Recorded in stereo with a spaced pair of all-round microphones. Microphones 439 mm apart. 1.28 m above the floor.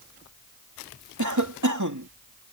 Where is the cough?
45° right (ahead or behind).